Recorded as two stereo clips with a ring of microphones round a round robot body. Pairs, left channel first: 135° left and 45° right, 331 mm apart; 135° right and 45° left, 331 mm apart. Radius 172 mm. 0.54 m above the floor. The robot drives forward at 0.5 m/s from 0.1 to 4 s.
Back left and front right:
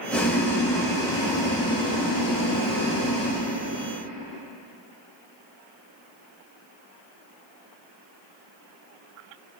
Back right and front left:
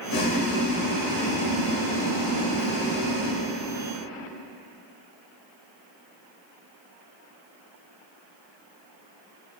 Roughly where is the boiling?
Behind right.